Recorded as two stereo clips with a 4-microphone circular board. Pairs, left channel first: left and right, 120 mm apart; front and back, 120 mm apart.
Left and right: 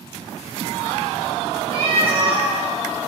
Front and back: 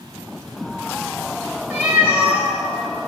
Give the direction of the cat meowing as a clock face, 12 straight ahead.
3 o'clock.